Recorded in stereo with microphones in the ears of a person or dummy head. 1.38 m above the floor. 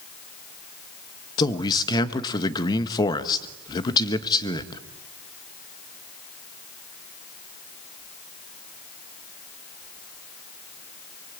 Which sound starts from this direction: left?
A man speaking, at 1.4 s.